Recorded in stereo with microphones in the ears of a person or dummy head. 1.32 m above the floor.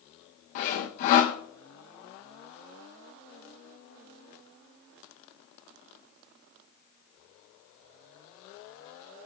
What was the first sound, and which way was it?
Sawing, 50° left (ahead or behind).